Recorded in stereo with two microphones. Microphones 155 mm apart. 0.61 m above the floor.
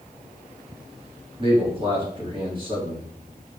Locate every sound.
1.4 s a man speaking: 35° right (ahead or behind), 1.4 m